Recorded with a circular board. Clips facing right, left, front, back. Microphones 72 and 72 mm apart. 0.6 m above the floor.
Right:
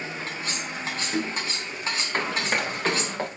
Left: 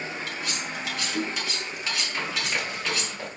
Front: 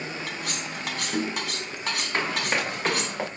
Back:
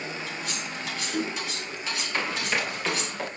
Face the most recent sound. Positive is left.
turn(degrees=-55)